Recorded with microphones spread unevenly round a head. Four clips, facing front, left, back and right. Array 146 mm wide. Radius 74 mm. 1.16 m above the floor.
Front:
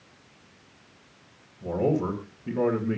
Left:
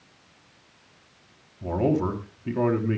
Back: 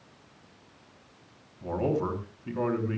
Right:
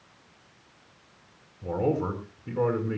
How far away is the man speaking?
About 3.5 m.